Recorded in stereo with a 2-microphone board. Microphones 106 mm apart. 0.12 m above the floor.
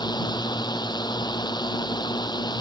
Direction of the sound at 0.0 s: 40° left (ahead or behind).